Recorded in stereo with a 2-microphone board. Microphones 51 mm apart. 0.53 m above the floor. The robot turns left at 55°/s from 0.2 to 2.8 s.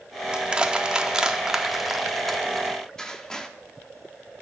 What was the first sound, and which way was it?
Crushing, 20° right (ahead or behind).